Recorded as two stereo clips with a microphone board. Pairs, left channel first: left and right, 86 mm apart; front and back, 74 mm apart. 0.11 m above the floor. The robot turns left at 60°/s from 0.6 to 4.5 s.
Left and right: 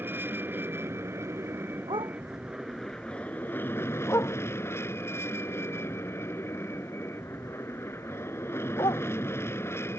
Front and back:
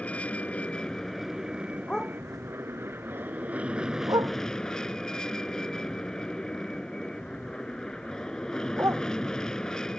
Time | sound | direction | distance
0.0 | an aircraft | 55° right | ?
1.9 | a dog barking | 75° right | ?